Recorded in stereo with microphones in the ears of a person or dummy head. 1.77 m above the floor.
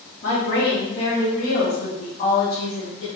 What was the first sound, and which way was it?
A woman speaking, 50° left (ahead or behind).